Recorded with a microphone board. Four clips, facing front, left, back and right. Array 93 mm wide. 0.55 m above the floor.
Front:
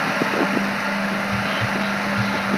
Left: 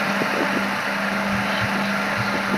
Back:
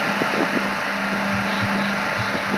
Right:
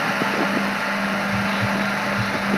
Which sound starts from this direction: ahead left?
Whispering, at 1.3 s.